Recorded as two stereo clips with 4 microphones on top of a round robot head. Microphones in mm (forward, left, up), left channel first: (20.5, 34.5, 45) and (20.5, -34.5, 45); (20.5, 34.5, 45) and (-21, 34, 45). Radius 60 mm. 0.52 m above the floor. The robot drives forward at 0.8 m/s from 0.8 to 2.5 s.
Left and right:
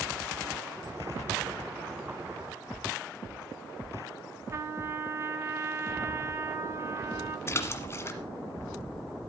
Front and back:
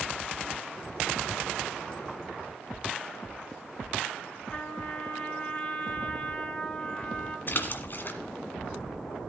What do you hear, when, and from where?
4.5 s a trumpet: 60° right, 1.8 m
7.5 s a splash: 35° left, 1.5 m